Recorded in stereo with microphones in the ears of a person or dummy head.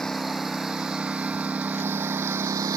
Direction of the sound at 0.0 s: 5° left (ahead or behind).